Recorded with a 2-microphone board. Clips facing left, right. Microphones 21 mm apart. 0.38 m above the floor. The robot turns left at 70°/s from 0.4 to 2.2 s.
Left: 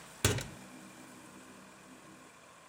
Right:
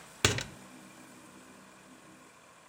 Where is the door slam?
25° right (ahead or behind), 0.6 m; by 0.6 s 30° right (ahead or behind), 0.6 m.